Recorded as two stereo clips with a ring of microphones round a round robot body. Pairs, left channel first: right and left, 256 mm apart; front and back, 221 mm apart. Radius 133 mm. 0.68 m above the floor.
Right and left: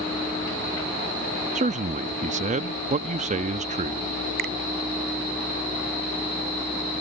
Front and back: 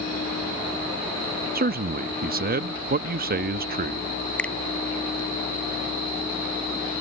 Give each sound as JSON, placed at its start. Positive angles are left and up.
{"t": 1.6, "sound": "a man speaking", "azimuth_deg": 145}
{"t": 4.4, "sound": "a finger snap", "azimuth_deg": 85}